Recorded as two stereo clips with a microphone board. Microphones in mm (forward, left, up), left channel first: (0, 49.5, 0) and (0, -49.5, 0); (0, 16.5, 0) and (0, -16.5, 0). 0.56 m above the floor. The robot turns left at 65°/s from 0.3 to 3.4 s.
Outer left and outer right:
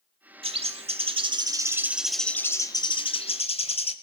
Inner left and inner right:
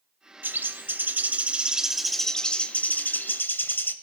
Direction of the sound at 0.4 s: 70° right.